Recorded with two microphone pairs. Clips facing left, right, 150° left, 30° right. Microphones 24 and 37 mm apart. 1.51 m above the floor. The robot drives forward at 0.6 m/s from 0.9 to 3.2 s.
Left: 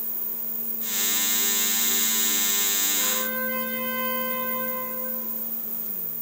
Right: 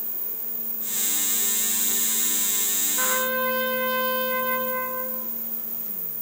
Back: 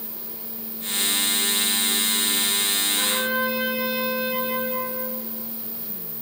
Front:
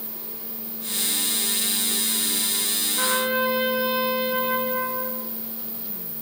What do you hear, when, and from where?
3.0 s a trumpet: 95° right, 1.1 m; by 5.2 s 100° right, 1.2 m